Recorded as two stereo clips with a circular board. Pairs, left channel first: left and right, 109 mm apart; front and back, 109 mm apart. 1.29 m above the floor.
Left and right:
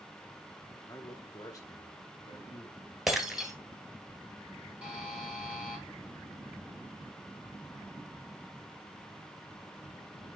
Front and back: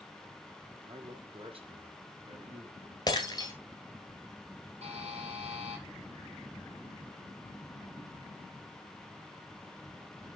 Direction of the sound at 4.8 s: 170° right.